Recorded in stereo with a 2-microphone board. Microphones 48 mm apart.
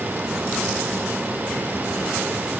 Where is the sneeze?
No sneeze in this recording.